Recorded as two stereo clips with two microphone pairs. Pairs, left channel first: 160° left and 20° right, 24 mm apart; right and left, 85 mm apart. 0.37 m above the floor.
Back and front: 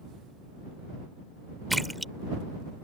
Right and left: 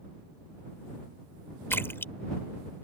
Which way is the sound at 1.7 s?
105° right.